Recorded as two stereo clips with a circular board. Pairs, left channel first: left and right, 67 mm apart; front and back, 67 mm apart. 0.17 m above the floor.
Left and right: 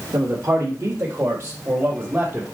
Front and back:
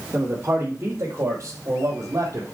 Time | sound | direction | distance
0.1 | a man speaking | 120° right | 3.5 m